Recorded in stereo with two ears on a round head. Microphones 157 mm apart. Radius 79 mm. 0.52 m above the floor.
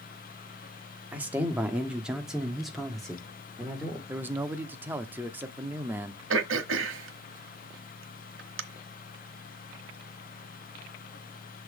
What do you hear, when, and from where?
1.1 s a man speaking: 10° right (ahead or behind), 1.3 m; by 4.0 s 5° left (ahead or behind), 2.0 m
4.1 s a man speaking: 10° right (ahead or behind), 0.7 m
6.3 s throat clearing: 80° right, 1.1 m